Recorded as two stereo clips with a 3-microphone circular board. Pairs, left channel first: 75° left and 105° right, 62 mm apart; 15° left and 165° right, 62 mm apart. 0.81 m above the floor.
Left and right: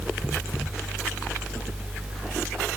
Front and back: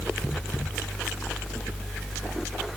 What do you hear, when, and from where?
Only background noise.